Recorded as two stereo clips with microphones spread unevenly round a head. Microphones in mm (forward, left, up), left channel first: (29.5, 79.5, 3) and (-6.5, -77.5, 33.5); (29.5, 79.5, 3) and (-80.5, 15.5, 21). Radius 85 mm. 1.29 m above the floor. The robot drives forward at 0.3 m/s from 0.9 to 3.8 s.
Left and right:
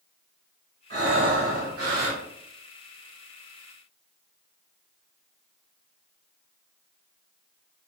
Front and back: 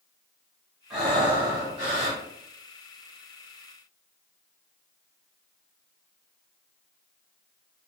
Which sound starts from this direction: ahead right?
Breathing, at 0.9 s.